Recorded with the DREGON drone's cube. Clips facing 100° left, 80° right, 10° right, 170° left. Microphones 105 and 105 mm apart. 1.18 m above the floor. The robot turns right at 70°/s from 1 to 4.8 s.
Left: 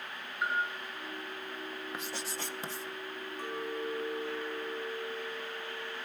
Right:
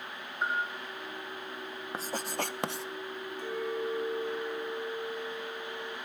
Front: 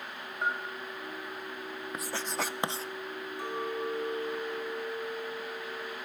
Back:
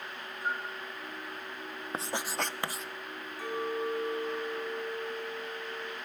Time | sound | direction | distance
0.4 | a bell | 25° right | 4 m
1.9 | writing | 130° right | 0.6 m
3.4 | a clink | 60° left | 7 m